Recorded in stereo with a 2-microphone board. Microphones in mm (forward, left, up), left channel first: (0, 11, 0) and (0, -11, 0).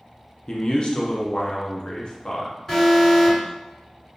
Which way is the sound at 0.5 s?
45° left (ahead or behind).